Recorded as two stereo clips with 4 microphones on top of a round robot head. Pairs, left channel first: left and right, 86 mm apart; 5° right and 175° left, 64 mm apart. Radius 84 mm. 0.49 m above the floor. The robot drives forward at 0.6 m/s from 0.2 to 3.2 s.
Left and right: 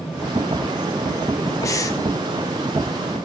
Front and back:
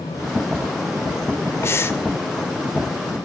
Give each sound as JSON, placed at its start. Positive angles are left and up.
{"t": 1.6, "sound": "breathing", "azimuth_deg": 40, "distance_m": 1.8}